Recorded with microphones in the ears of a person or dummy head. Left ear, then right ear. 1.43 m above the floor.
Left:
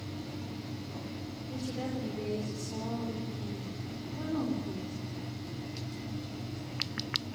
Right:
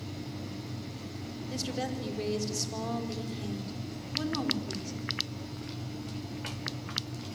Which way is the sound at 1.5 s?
50° right (ahead or behind).